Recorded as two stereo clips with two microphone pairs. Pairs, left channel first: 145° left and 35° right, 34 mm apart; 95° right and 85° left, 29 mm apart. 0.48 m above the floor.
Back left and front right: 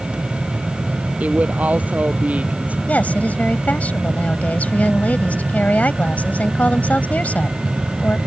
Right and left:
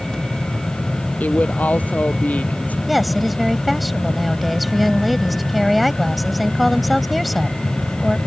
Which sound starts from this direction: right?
A woman speaking, at 1.2 s.